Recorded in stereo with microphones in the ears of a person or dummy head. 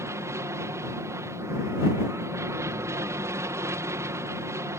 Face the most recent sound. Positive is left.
turn(degrees=-15)  # may be behind; listen again after turning